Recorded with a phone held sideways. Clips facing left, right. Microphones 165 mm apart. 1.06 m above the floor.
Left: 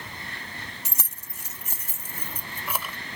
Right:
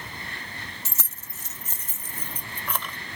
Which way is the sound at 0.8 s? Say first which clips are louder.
Even; 20° left (ahead or behind).